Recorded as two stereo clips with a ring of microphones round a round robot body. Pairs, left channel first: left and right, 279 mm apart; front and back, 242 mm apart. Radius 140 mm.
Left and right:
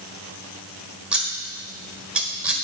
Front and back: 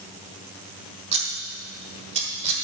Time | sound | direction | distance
1.1 | scissors | 170° right | 1.4 m